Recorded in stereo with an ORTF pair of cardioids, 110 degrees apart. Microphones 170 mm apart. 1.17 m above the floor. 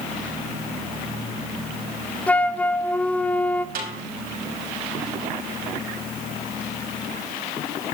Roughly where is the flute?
Ahead.